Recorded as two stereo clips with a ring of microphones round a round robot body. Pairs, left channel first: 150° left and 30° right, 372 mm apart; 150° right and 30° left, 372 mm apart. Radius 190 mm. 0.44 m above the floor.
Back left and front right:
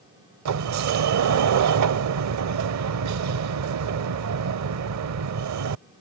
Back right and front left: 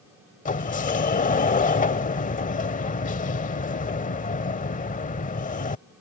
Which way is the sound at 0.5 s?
80° right.